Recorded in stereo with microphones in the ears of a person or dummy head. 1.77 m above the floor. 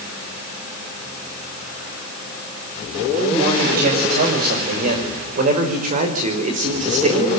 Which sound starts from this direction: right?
A man speaking, at 3.3 s.